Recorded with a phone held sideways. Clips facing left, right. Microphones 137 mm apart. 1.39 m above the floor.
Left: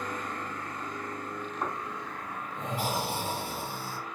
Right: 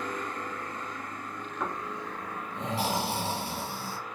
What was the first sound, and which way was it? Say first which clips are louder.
Snoring: right 3 dB; 85° right.